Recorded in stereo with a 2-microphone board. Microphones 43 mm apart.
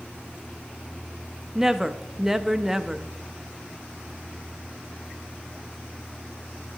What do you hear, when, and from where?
1.6 s a woman speaking: 5° right (ahead or behind), 0.5 m